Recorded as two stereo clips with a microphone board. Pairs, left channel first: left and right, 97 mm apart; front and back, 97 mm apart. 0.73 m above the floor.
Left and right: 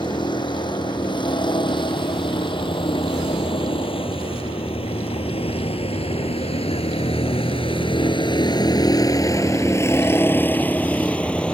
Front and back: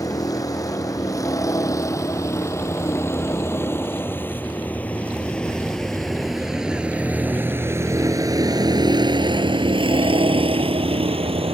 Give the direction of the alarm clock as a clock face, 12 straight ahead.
I don't hear an alarm clock.